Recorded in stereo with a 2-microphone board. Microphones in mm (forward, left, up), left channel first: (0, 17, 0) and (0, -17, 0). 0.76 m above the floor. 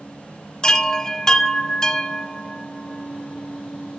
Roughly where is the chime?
Left.